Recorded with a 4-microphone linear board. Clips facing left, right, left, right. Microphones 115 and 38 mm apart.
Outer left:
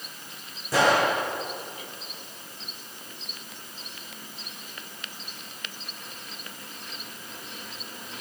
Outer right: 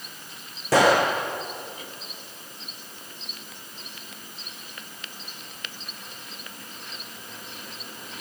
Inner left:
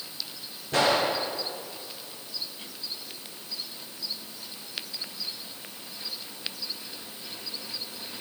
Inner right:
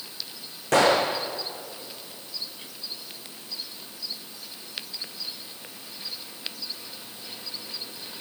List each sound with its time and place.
0.7 s a gunshot: 85° right, 3.5 m